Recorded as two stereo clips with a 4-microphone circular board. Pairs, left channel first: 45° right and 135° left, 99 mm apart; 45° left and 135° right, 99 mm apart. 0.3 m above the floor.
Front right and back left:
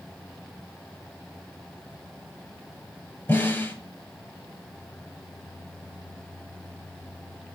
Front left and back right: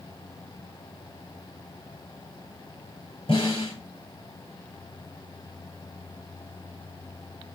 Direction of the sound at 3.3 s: 25° left.